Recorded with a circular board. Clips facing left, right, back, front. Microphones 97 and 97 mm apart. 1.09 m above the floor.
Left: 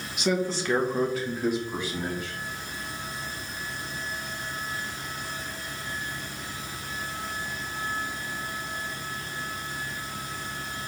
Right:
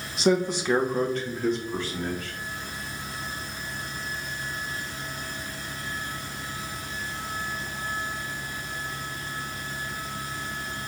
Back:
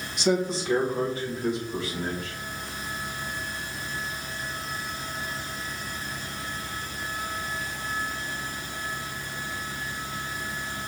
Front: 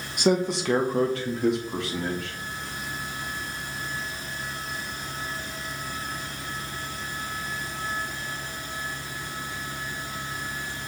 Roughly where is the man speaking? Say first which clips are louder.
Right 4 dB, front 2 dB; ahead right.